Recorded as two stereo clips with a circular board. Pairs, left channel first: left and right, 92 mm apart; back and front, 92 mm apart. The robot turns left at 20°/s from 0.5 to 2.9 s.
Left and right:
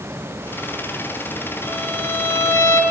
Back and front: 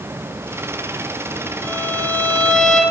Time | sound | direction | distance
1.6 | a violin | 145° left | 1.2 m